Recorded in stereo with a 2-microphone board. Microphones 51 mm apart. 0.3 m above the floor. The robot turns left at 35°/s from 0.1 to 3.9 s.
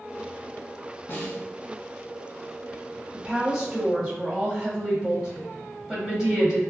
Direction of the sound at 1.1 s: 45° left (ahead or behind).